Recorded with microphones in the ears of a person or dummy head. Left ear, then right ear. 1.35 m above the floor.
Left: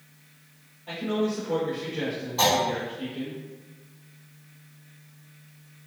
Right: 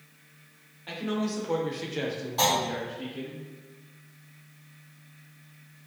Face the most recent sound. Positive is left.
turn(degrees=-20)  # may be behind; listen again after turning